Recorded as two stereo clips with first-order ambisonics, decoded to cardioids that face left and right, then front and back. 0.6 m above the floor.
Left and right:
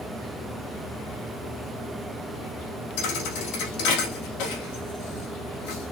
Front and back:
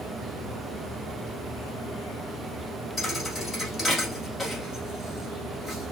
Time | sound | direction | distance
3.0 | a thud | 80° left | 4 m